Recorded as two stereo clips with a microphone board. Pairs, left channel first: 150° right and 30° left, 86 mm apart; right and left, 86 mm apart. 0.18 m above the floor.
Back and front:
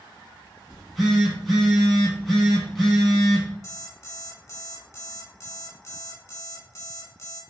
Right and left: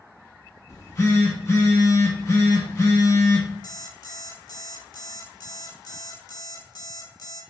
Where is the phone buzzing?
60° right, 1.0 m.